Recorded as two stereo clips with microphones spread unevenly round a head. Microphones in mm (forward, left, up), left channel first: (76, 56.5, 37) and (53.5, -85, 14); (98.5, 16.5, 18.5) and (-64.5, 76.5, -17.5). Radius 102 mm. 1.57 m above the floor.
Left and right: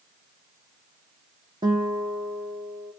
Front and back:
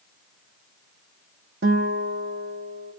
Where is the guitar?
170° right, 0.7 m.